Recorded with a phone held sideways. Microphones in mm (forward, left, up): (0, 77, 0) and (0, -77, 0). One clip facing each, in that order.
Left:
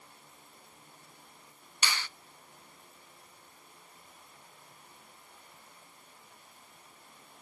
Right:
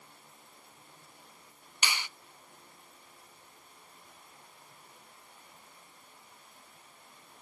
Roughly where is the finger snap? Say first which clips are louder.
Even; centre.